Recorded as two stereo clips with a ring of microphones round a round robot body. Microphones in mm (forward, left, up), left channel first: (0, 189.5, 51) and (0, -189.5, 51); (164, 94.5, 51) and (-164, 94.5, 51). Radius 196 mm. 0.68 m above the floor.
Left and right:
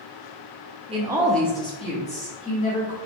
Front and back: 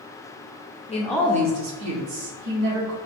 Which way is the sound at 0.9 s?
35° right.